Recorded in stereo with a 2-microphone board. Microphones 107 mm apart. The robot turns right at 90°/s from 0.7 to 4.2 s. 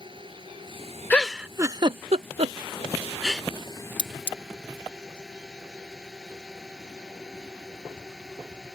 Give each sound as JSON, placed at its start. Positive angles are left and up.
{"t": 0.0, "sound": "a drone", "azimuth_deg": -130}
{"t": 1.1, "sound": "a giggle", "side_deg": 15}
{"t": 4.0, "sound": "cutlery clinking", "side_deg": 40}